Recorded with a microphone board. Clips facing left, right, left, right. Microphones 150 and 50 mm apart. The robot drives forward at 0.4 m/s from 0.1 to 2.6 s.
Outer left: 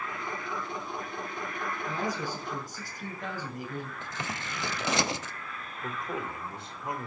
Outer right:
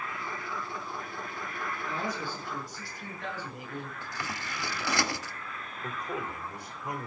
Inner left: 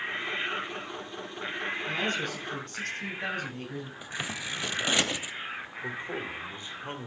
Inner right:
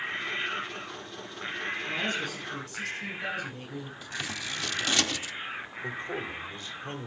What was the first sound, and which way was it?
A man speaking, 45° left (ahead or behind).